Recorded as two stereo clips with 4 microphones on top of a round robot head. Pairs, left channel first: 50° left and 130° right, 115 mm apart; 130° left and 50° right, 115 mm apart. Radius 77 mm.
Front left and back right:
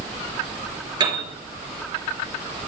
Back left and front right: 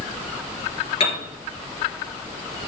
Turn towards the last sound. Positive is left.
turn(degrees=175)